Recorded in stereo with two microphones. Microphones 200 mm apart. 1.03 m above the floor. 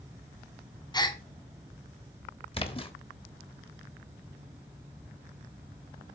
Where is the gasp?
20° left (ahead or behind), 0.8 m.